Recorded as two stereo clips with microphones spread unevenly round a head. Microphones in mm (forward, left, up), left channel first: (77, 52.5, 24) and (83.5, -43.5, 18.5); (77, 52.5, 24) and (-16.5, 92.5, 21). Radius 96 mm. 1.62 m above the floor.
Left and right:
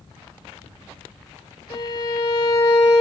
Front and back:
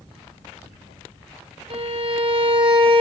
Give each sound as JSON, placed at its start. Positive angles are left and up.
{"t": 1.7, "sound": "a violin", "azimuth_deg": 140, "distance_m": 1.2}